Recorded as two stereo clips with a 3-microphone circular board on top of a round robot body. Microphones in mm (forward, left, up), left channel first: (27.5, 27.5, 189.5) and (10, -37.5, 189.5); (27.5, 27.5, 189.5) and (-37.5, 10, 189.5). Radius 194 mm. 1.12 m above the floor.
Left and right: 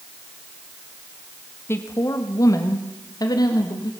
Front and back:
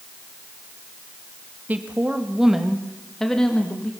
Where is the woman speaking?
130° left, 1.6 m; by 3.9 s 85° left, 2.5 m.